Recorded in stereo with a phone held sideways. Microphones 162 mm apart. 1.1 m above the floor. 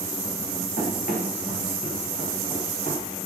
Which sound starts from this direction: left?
Running footsteps, at 0.8 s.